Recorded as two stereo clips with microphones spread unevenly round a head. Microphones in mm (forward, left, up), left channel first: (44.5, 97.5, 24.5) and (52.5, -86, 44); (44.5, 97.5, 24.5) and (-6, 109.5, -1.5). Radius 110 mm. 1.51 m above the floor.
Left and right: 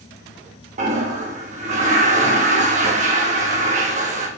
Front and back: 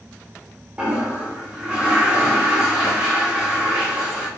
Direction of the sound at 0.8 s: 85° right.